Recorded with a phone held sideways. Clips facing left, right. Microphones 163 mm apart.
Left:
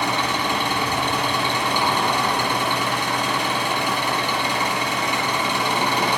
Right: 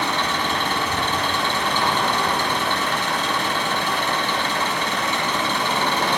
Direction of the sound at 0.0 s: 10° left (ahead or behind).